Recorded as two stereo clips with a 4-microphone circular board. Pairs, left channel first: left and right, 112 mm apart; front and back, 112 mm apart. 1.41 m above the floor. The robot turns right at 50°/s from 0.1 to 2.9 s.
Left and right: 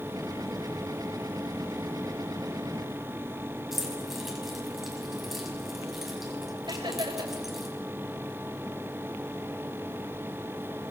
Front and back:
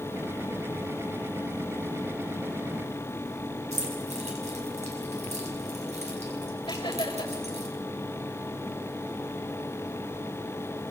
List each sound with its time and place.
3.7 s keys jangling: 175° right, 6.5 m
6.7 s laughter: 45° right, 7 m